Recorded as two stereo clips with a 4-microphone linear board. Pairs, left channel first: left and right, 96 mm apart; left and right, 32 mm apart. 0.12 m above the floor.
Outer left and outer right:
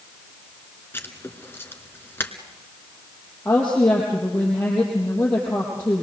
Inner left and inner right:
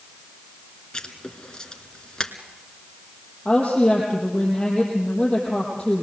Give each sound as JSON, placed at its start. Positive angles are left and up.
{"t": 0.9, "sound": "writing", "side_deg": 25, "distance_m": 1.6}
{"t": 3.5, "sound": "a woman speaking", "side_deg": 20, "distance_m": 4.0}